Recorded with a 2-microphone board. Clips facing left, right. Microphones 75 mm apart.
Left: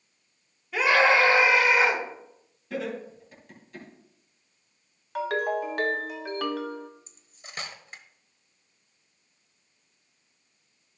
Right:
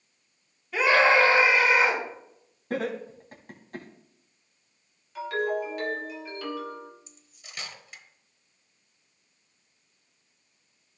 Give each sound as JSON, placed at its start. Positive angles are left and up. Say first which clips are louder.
{"t": 0.7, "sound": "a scream", "louder": "right 1 dB", "side_deg": 0, "distance_m": 4.0}
{"t": 2.7, "sound": "laughter", "louder": "right 2 dB", "side_deg": -50, "distance_m": 3.0}
{"t": 5.2, "sound": "a ringtone", "louder": "left 1 dB", "side_deg": 75, "distance_m": 1.4}
{"t": 7.1, "sound": "cutlery clinking", "louder": "left 3 dB", "side_deg": 40, "distance_m": 1.1}